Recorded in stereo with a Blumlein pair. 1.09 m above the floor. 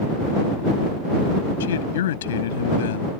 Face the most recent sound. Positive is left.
turn(degrees=60)